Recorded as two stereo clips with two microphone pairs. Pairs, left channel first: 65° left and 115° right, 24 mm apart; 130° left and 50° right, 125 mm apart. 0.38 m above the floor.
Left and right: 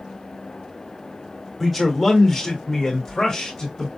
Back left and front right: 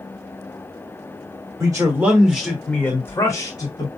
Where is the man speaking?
45° right, 1.2 m; by 3.9 s 120° left, 1.4 m.